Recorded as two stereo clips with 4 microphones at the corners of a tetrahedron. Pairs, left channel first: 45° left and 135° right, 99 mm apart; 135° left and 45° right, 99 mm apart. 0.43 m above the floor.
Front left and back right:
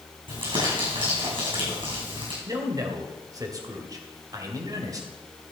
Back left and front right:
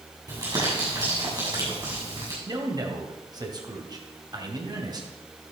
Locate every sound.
0.3 s crumpling: 100° right, 6.5 m
2.5 s a man speaking: 85° right, 2.5 m